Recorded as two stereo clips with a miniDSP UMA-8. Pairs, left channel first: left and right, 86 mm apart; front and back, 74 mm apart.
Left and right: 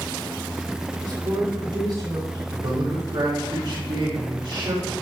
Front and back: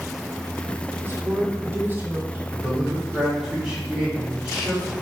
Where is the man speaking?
100° right, 3.5 m.